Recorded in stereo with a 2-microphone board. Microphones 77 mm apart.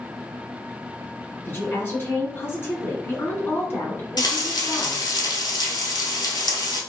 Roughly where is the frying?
Left.